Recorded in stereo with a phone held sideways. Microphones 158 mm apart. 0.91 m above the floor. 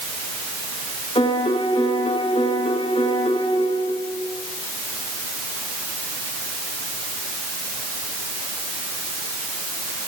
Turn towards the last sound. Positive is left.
turn(degrees=40)  # may be behind; listen again after turning